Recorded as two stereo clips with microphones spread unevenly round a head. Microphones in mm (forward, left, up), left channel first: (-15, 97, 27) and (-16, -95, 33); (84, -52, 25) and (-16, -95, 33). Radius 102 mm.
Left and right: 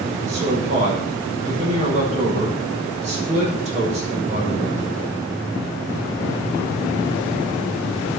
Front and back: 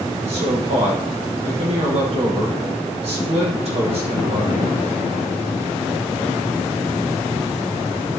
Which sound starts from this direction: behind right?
A man speaking, at 0.3 s.